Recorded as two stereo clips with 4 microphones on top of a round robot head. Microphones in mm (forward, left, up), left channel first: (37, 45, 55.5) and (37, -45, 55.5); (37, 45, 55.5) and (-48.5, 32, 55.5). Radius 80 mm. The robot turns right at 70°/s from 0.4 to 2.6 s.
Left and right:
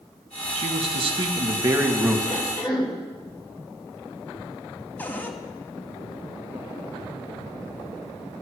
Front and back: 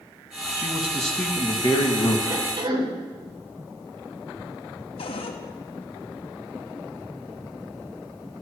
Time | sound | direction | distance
0.6 | a man speaking | 110° right | 2.5 m
2.3 | a cough | 130° left | 4 m
5.0 | a cupboard door | 20° left | 1.7 m